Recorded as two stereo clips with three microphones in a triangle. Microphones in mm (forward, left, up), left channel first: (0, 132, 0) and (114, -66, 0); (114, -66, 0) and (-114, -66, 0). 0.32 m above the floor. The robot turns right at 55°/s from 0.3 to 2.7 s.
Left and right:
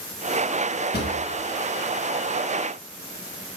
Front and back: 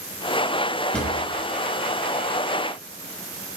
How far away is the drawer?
About 0.5 m.